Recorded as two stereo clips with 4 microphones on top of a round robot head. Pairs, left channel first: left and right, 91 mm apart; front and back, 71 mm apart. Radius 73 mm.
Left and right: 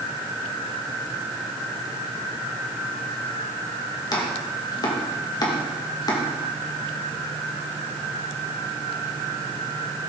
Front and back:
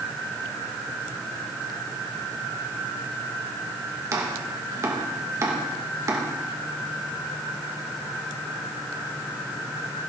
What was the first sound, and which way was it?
Chopping, 135° left.